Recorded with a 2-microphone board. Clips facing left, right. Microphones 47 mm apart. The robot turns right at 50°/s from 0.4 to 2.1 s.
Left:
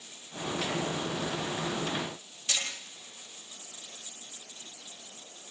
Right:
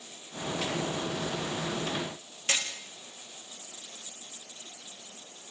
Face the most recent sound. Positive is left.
turn(degrees=-45)  # may be behind; listen again after turning